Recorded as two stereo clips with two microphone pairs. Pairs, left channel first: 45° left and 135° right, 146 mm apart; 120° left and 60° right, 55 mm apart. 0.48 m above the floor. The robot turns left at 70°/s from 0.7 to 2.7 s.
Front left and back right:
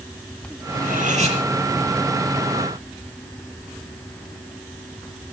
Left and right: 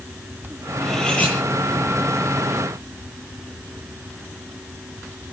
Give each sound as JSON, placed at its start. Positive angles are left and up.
{"t": 0.8, "sound": "cutlery clinking", "azimuth_deg": -150, "distance_m": 8.0}